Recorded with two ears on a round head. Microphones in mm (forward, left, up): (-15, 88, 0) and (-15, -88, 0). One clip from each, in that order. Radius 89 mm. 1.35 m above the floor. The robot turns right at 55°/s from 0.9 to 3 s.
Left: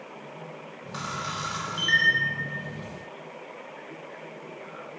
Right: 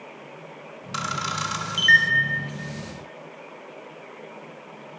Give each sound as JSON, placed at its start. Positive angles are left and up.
{"t": 0.9, "sound": "a camera shutter", "side_deg": -65, "distance_m": 1.2}